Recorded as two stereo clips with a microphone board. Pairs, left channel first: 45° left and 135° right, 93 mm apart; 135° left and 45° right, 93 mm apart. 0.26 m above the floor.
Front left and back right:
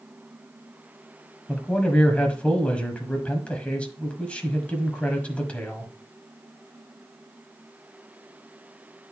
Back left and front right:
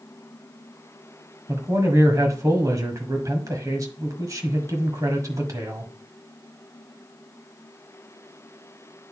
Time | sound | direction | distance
1.5 | a man speaking | 25° right | 1.3 m